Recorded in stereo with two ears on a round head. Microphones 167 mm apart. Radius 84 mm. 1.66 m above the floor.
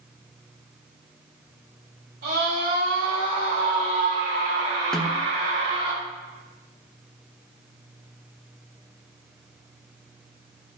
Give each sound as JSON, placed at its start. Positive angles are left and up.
{"t": 2.2, "sound": "a scream", "side_deg": -65, "distance_m": 4.0}
{"t": 4.9, "sound": "a snare drum", "side_deg": 5, "distance_m": 0.9}